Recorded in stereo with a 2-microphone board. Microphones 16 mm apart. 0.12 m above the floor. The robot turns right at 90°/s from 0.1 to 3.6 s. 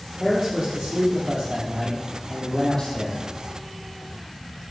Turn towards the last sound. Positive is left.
turn(degrees=130)